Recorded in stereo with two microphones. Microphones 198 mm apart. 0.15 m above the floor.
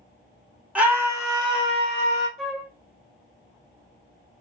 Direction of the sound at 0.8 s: 5° right (ahead or behind).